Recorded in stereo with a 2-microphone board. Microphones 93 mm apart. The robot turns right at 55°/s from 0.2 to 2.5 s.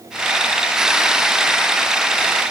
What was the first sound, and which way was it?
Only background noise.